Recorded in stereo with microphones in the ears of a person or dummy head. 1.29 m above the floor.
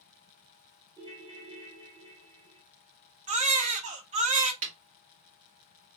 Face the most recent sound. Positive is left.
turn(degrees=-35)  # may be behind; listen again after turning